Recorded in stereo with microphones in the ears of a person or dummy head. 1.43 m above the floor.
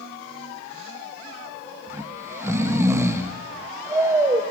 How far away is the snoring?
About 1.1 m.